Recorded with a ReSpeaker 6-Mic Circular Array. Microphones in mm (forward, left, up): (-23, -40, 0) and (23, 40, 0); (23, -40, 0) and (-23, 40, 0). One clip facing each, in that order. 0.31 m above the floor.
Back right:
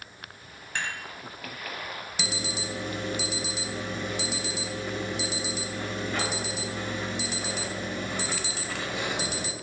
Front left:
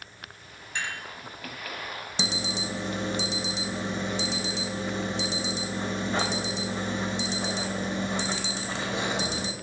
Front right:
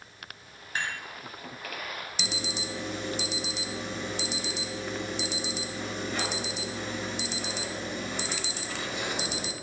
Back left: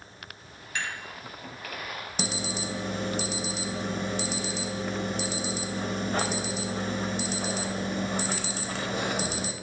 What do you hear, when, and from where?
0.8 s dishes clattering: 105° right, 1.4 m
2.2 s an alarm: 110° left, 0.8 m